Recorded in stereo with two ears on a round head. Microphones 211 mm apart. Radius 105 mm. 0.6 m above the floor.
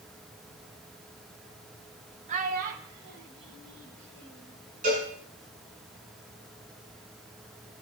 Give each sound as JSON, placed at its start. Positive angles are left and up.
{"t": 2.3, "sound": "a child speaking", "side_deg": -35, "distance_m": 1.5}
{"t": 4.8, "sound": "a cowbell", "side_deg": -35, "distance_m": 6.0}